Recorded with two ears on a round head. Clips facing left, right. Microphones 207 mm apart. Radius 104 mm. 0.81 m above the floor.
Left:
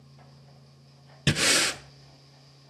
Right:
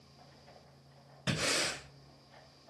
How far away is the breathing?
About 0.8 m.